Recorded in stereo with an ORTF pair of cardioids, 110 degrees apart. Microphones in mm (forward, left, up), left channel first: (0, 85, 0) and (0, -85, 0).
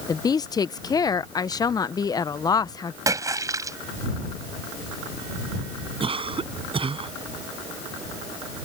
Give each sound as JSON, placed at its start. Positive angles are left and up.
{"t": 0.1, "sound": "a woman speaking", "azimuth_deg": 25}
{"t": 3.1, "sound": "a splash", "azimuth_deg": -20}
{"t": 6.0, "sound": "a cough", "azimuth_deg": -30}